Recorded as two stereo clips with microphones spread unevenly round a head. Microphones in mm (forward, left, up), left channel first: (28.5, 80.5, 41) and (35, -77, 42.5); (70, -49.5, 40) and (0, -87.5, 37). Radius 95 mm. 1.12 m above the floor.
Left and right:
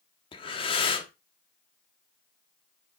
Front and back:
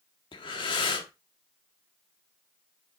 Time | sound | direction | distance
0.3 | breathing | 35° left | 1.2 m